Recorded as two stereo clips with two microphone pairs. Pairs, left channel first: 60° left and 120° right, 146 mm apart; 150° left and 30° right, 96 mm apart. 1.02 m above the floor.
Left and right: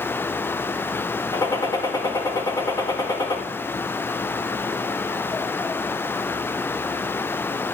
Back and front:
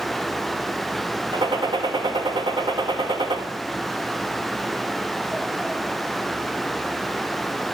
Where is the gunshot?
5° right, 1.8 m.